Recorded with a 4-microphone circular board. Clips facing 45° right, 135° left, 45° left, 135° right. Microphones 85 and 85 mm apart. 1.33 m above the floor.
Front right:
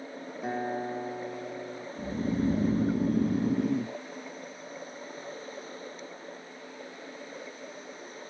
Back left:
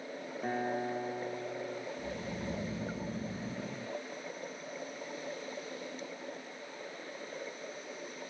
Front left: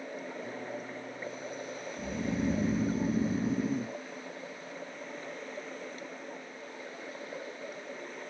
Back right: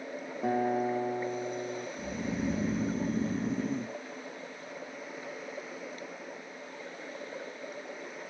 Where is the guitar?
125° right.